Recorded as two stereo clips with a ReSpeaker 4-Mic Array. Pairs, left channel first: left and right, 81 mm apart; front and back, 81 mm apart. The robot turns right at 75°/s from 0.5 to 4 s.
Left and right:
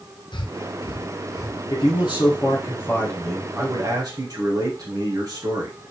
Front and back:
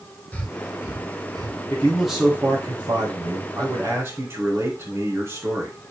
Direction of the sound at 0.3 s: 70° left.